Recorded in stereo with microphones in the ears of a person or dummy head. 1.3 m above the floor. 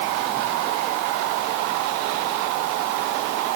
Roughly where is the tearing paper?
No tearing paper in this recording.